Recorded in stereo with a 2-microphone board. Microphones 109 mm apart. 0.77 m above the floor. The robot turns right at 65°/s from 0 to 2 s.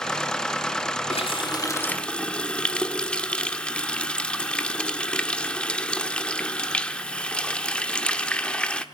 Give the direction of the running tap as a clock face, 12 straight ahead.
8 o'clock.